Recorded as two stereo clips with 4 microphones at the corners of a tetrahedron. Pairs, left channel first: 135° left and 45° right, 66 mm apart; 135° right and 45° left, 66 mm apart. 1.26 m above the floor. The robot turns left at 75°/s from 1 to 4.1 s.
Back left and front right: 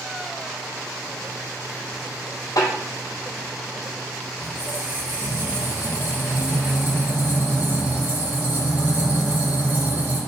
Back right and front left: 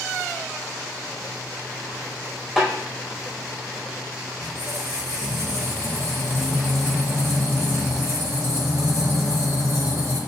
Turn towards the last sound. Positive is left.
turn(degrees=5)